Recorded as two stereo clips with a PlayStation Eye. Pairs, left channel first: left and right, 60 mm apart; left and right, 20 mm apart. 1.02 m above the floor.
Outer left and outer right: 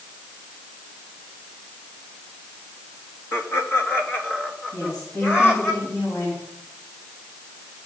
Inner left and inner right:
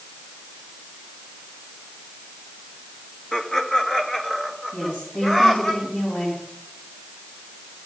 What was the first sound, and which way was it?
Laughter, 45° left (ahead or behind).